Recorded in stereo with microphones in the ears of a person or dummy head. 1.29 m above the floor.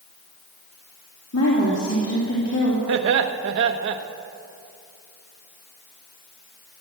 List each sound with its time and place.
1.3 s a woman speaking: 85° left, 3 m
2.9 s laughter: 70° right (ahead or behind), 1.3 m